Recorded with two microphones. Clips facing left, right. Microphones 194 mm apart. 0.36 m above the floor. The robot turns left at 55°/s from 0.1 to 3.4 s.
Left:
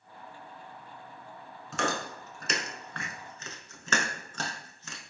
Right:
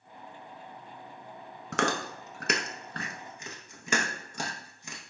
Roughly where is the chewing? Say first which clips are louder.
Right 2 dB; right.